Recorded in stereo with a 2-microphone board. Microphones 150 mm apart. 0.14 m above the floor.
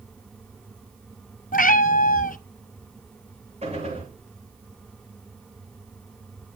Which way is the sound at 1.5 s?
65° left (ahead or behind).